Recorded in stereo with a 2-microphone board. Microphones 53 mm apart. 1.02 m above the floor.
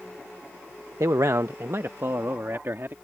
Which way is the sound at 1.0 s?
75° right (ahead or behind).